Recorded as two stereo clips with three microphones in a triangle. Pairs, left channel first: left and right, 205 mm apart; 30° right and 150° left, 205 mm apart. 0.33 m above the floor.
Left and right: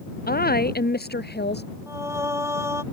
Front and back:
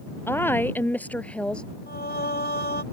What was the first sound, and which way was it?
A woman speaking, 50° left.